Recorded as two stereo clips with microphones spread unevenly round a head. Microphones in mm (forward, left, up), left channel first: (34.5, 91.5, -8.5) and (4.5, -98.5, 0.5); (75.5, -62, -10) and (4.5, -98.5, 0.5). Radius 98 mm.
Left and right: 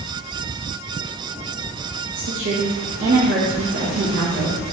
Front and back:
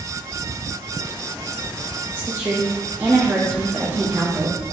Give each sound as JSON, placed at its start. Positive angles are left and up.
{"t": 2.1, "sound": "a woman speaking", "azimuth_deg": -85, "distance_m": 0.7}